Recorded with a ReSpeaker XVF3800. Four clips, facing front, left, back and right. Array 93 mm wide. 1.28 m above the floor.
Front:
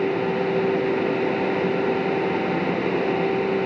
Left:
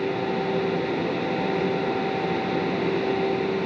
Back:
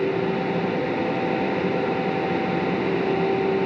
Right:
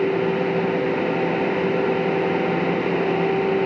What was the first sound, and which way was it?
Only background noise.